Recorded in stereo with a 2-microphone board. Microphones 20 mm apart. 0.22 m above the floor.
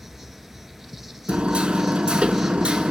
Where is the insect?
10° right (ahead or behind), 0.8 m.